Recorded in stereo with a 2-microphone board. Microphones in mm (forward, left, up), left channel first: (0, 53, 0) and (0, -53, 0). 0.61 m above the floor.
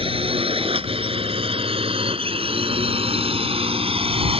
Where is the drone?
65° right (ahead or behind); by 4.4 s 70° right (ahead or behind).